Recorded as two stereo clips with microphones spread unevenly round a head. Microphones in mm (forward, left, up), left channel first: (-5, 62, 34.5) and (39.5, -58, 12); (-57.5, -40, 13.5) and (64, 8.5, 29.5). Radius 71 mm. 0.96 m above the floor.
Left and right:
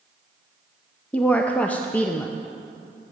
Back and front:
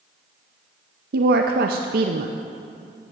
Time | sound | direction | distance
1.1 | a woman speaking | 25° left | 0.5 m